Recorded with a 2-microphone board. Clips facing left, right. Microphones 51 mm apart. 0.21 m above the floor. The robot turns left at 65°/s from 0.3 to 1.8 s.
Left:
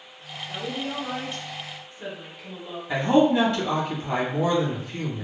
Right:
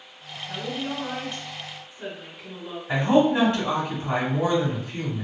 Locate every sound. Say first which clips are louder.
0.5 s a woman speaking: right 1 dB; 85° right, 1.6 m; by 2.8 s 170° right, 1.6 m
2.9 s a man speaking: even; 30° right (ahead or behind), 1.2 m